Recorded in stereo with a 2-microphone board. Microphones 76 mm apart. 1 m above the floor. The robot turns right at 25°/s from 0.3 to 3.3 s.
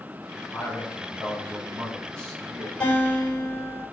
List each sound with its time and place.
0.5 s a man speaking: straight behind, 2.5 m; by 2.7 s 125° right, 2.5 m
2.8 s a guitar: 15° left (ahead or behind), 4.5 m; by 3.8 s 25° left (ahead or behind), 4.5 m